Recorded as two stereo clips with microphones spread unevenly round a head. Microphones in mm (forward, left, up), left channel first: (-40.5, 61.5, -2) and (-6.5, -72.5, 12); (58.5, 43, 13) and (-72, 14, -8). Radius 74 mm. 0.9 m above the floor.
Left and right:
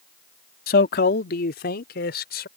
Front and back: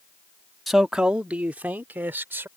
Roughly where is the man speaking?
Left.